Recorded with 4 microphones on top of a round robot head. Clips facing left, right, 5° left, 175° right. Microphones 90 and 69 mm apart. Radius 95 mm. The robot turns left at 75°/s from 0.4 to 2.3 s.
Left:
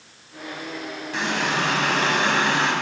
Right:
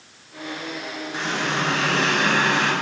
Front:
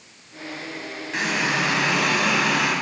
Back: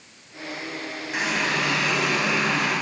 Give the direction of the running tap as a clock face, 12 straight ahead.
8 o'clock.